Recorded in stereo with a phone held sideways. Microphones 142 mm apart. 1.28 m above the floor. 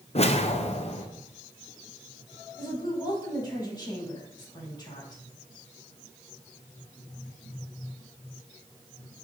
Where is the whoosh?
45° left (ahead or behind), 0.6 m.